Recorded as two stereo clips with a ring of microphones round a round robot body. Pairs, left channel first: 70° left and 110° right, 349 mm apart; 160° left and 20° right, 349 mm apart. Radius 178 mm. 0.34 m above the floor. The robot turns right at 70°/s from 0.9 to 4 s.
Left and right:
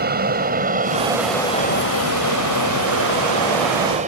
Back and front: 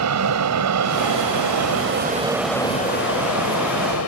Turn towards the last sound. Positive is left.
turn(degrees=-175)